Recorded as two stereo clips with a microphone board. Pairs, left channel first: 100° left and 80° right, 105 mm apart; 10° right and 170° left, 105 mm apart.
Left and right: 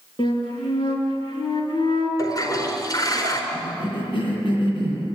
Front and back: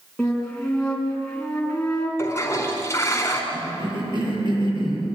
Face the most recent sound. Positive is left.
turn(degrees=130)